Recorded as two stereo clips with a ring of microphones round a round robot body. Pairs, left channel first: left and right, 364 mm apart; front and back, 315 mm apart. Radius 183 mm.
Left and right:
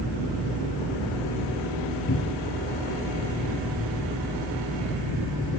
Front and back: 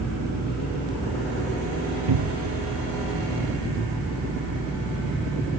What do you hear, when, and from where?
2.1 s a cupboard door: 155° left, 1.0 m